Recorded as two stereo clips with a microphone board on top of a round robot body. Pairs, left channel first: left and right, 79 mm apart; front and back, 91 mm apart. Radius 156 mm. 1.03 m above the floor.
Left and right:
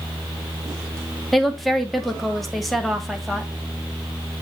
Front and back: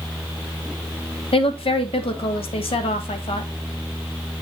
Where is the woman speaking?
Straight ahead, 2.5 m.